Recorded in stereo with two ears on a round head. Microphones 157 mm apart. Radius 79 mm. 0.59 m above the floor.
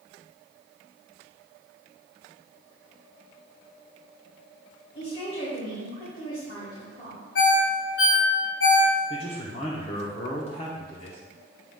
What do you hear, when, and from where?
5.0 s a woman speaking: 30° left (ahead or behind), 2.5 m
7.3 s a ringtone: 70° left (ahead or behind), 2 m
9.1 s a man speaking: 35° left (ahead or behind), 1.0 m